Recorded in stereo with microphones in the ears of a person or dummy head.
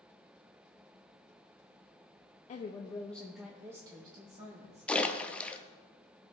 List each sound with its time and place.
2.5 s a woman speaking: 40° left (ahead or behind), 0.7 m; by 4.9 s 35° right (ahead or behind), 1.6 m
4.9 s a splash: 5° left (ahead or behind), 0.6 m